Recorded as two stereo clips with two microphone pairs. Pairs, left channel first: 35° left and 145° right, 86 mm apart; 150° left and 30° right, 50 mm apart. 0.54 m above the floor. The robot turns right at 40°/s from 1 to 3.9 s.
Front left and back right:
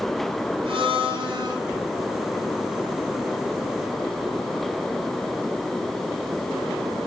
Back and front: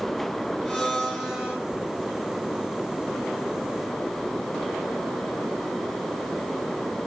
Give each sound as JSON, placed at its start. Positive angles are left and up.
{"t": 0.7, "sound": "a blender", "azimuth_deg": -125, "distance_m": 2.0}